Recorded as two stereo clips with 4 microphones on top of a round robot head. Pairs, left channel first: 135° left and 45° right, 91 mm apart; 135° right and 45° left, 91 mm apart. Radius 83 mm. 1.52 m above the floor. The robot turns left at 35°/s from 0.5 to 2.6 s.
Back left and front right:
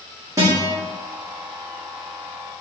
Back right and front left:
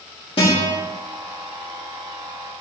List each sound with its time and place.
0.4 s a guitar: 105° right, 2 m; by 0.7 s 115° right, 2 m